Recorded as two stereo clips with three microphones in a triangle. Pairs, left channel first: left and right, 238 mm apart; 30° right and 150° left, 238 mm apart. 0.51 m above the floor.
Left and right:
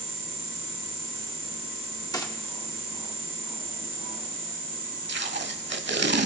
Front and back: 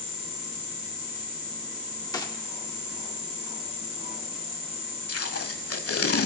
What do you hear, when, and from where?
2.1 s a gunshot: 30° left, 1.1 m
5.1 s tape being pulled: 45° right, 0.9 m